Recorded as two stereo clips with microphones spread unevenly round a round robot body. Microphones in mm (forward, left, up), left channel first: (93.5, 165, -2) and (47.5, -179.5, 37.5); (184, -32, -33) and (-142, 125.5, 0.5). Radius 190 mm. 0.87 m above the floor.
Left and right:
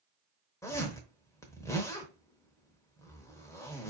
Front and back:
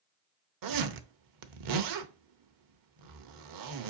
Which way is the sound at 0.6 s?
170° left.